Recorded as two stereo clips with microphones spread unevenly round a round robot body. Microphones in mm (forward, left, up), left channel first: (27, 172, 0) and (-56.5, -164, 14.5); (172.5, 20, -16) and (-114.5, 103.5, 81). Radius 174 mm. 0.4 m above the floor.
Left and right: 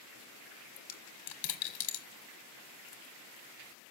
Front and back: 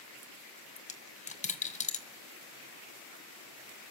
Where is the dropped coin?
45° left, 1.4 m.